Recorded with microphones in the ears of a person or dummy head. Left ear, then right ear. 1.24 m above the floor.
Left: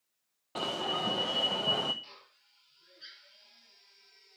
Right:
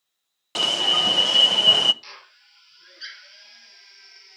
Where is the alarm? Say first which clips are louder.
Right 13 dB; 65° right (ahead or behind), 0.8 m.